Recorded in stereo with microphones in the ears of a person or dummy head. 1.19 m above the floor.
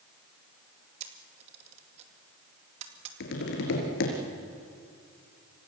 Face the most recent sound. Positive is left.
turn(degrees=70)  # may be behind; listen again after turning